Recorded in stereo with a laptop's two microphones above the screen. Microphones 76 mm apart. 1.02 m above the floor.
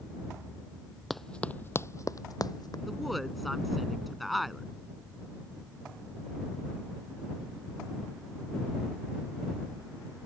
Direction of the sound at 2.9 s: Centre (ahead or behind).